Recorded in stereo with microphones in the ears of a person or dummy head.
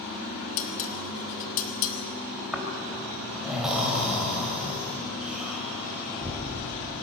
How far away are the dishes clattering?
About 1.8 m.